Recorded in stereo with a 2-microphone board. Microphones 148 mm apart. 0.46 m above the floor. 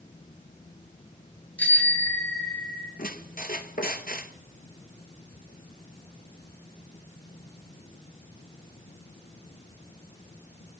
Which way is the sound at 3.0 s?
75° left (ahead or behind).